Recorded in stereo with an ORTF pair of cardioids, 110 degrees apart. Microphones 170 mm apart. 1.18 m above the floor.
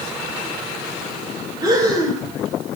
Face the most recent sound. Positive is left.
turn(degrees=-25)